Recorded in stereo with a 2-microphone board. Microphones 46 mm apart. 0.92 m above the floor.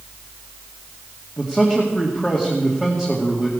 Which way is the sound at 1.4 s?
15° left (ahead or behind).